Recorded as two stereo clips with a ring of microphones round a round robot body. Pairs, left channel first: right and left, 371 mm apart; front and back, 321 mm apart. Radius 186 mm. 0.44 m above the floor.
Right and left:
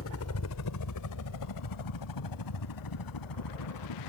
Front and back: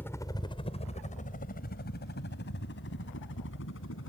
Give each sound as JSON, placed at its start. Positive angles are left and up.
{"t": 0.0, "sound": "a helicopter", "azimuth_deg": -80}